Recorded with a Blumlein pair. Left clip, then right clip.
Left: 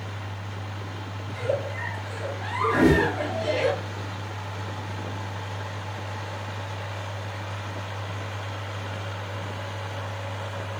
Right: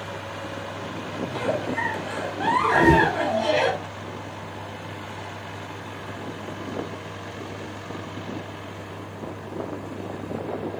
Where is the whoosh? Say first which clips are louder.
Right 2 dB; 10° left, 0.8 m.